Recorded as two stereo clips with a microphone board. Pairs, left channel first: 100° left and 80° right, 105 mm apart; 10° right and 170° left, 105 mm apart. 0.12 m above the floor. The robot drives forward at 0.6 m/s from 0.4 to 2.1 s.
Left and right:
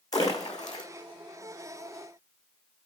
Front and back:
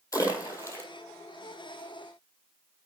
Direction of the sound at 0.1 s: 45° left.